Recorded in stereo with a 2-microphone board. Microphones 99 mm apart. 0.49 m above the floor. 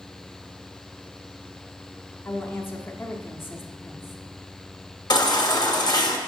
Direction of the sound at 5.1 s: 45° left (ahead or behind).